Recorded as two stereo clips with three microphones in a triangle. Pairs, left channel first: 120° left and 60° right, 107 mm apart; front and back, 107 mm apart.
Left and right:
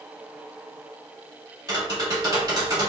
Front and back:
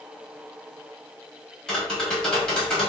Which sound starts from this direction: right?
Tapping, at 1.7 s.